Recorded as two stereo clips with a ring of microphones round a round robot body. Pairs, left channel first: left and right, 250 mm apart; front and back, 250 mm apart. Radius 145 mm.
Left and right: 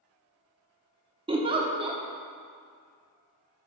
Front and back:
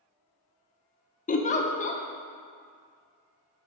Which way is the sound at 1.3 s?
35° right.